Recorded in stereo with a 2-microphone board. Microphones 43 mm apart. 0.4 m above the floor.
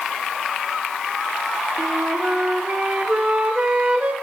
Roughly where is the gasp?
No gasp in this recording.